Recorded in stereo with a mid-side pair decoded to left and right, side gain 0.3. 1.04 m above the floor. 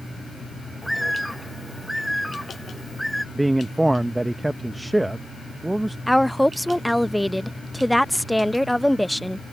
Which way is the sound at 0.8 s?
5° right.